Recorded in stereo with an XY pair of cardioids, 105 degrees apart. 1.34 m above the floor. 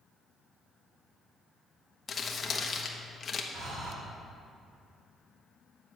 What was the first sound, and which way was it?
Crumpling, 45° left.